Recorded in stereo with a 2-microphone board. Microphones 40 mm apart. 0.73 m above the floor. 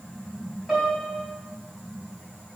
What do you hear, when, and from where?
0.7 s a piano: 5° right (ahead or behind), 3.5 m